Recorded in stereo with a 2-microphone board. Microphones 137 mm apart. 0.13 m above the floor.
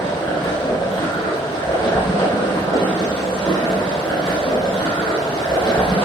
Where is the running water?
35° left (ahead or behind), 3 m.